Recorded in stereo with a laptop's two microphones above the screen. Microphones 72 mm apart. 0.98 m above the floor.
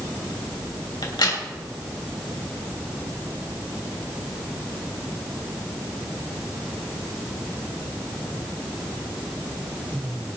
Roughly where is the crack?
Left.